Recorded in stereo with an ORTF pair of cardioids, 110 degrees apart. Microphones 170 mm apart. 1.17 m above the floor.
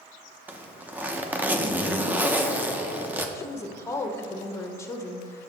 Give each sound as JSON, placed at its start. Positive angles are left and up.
{"t": 0.5, "sound": "a zipper", "azimuth_deg": -10, "distance_m": 0.7}
{"t": 3.4, "sound": "a woman speaking", "azimuth_deg": 15, "distance_m": 0.9}